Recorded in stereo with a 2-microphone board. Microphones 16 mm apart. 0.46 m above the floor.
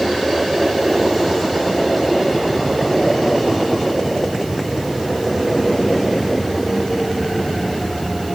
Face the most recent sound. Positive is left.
No sound to turn to.